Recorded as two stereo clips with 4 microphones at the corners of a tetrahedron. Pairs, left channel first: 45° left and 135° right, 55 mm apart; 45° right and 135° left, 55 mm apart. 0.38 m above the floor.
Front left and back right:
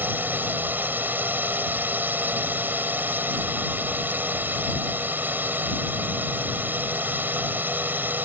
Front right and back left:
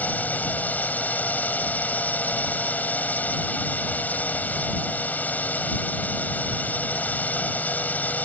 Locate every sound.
0.0 s a drone: 95° right